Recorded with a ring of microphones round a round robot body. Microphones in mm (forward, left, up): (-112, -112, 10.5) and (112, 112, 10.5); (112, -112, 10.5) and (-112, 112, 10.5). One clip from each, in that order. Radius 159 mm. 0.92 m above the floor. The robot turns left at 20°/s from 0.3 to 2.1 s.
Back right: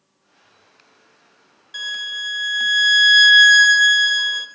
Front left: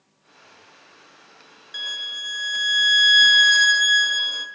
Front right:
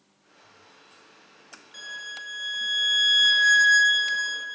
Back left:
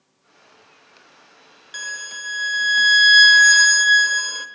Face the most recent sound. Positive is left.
turn(degrees=130)